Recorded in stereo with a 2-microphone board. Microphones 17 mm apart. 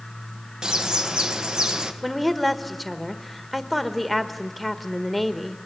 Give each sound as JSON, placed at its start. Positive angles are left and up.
{"t": 0.6, "sound": "a bird", "side_deg": -55, "distance_m": 1.5}
{"t": 2.0, "sound": "a woman speaking", "side_deg": 0, "distance_m": 1.4}